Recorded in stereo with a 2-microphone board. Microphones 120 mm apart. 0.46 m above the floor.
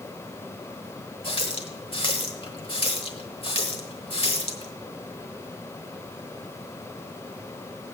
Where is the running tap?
50° left (ahead or behind), 1.2 m.